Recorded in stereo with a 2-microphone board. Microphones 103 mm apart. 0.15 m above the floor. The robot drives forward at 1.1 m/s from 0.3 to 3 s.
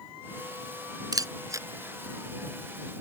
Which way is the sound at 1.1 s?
40° right (ahead or behind).